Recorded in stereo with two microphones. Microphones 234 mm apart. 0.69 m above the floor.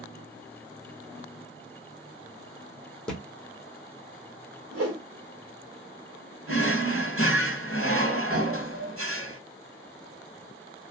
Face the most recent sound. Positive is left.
turn(degrees=-70)  # may be behind; listen again after turning